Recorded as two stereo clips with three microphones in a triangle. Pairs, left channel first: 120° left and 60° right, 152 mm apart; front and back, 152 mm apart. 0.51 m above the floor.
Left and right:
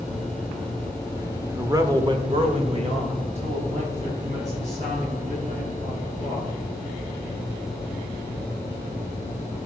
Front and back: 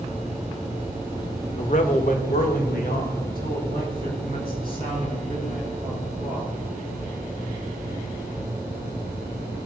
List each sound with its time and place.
1.5 s a man speaking: 10° left, 1.3 m; by 6.5 s 20° right, 7 m